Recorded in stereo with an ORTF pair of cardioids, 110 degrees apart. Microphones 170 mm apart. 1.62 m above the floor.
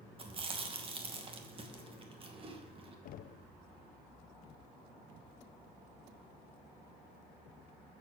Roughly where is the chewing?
Ahead right.